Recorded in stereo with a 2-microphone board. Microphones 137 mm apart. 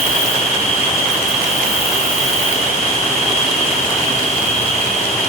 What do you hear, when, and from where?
0.0 s an insect: 45° left (ahead or behind), 5.5 m